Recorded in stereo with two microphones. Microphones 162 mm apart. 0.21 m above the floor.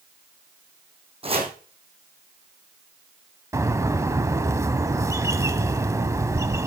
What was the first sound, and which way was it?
Chopping, 35° right (ahead or behind).